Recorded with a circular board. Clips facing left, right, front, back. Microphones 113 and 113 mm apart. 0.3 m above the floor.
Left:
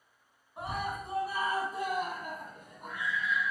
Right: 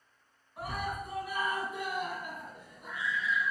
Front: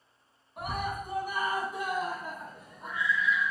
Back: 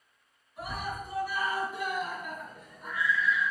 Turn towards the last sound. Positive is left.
turn(degrees=75)